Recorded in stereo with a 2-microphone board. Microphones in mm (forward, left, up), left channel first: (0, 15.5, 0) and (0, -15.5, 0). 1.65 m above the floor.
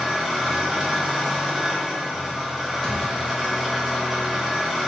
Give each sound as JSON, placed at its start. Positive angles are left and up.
{"t": 0.0, "sound": "an engine running", "side_deg": -10, "distance_m": 0.8}
{"t": 2.8, "sound": "a thud", "side_deg": 10, "distance_m": 1.3}